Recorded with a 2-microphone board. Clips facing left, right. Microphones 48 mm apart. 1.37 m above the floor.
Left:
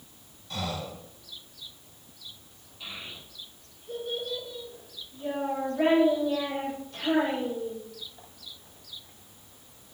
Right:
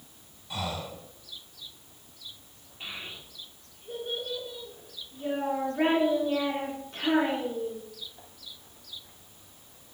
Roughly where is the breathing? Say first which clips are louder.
Even; centre.